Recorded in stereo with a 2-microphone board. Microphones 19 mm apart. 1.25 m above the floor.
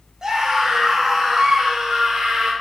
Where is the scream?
40° right (ahead or behind), 3.5 m.